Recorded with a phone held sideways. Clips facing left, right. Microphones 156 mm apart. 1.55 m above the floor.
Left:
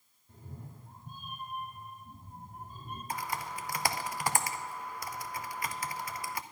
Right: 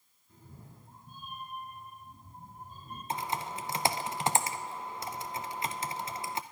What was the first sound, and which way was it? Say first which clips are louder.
A cat meowing: left 4 dB; 50° left (ahead or behind).